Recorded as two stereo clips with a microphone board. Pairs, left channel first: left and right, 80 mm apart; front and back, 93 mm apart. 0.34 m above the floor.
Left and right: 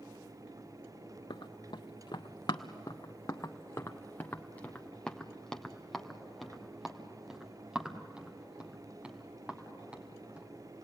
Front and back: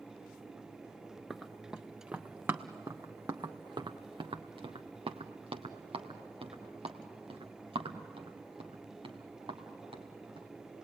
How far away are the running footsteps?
About 1.5 m.